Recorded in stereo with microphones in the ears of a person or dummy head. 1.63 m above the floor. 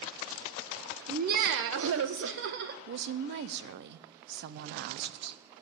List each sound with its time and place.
1.1 s laughter: 40° right (ahead or behind), 1.2 m; by 2.8 s 60° right (ahead or behind), 1.7 m
2.9 s a woman speaking: 60° right (ahead or behind), 0.7 m